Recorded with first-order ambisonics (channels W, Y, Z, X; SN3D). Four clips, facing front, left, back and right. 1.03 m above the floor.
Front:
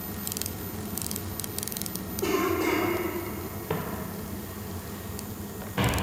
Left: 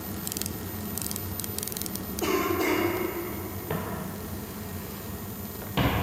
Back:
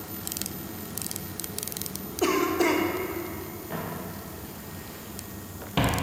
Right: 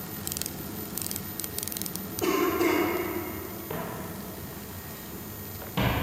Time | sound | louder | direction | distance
2.2 | a cough | right 1 dB, back 2 dB | 175° left | 1.3 m
3.7 | footsteps | left 2 dB, front 3 dB | 30° left | 1.3 m